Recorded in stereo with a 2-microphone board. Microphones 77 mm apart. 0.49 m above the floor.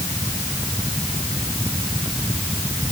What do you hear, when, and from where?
Only background noise.